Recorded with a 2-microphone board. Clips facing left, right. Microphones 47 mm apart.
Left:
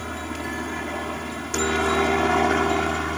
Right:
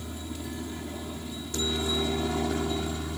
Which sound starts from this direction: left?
A helicopter, at 0.0 s.